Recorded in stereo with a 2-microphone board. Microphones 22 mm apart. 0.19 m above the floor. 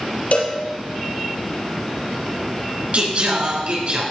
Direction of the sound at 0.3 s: 75° left (ahead or behind).